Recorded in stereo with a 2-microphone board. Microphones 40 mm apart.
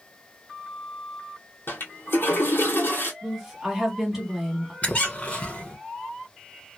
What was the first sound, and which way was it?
A toilet flushing, 70° left (ahead or behind).